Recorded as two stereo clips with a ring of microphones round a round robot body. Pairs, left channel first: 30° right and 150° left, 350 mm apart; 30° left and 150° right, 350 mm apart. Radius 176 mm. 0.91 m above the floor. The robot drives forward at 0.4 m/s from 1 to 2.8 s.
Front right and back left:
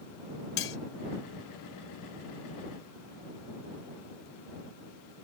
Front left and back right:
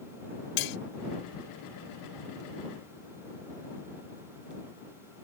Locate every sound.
0.6 s cutlery clinking: 25° left